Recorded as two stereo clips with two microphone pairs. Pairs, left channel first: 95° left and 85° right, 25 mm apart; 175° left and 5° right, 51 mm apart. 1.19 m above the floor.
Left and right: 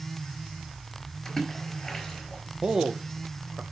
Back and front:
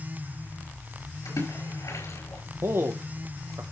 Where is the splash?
160° left, 6 m.